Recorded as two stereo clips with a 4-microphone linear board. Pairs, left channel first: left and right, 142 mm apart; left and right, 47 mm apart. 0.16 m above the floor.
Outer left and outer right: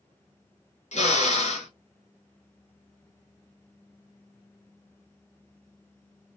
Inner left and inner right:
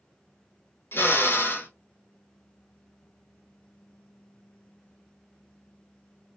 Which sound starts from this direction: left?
A drill, at 0.9 s.